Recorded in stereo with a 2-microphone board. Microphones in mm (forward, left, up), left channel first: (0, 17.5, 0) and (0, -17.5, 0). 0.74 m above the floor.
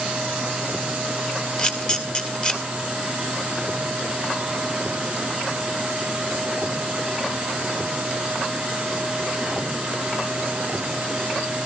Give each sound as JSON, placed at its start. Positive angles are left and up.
{"t": 1.6, "sound": "a camera shutter", "side_deg": 25, "distance_m": 2.5}